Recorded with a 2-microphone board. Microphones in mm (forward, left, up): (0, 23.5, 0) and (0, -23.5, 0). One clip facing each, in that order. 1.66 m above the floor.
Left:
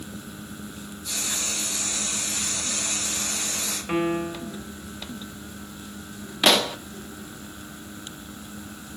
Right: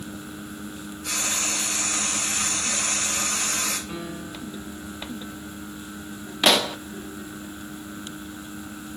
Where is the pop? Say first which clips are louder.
Even; centre (ahead or behind), 0.6 m.